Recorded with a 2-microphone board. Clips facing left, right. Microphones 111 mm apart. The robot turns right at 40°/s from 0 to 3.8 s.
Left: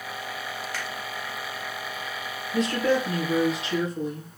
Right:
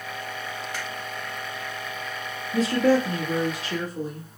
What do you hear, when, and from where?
0.7 s a finger snap: 20° right (ahead or behind), 1.3 m
2.5 s a woman speaking: 120° right, 1.8 m; by 4.3 s 70° right, 1.8 m